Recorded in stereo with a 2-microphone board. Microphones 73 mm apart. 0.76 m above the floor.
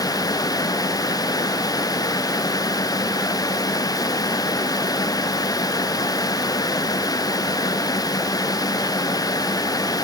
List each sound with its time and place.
Only background noise.